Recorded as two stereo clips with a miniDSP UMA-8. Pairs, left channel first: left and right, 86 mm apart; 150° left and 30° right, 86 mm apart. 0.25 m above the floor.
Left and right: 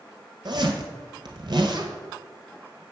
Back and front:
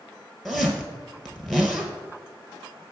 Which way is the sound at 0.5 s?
125° right.